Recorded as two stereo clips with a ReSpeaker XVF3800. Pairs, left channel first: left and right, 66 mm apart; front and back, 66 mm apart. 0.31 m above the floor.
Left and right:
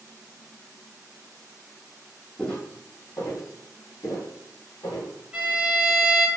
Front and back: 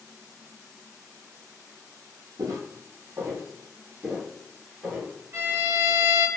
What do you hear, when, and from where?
2.4 s footsteps: 165° left, 0.6 m; by 5.1 s 85° left, 1.5 m
5.3 s a violin: 160° right, 0.7 m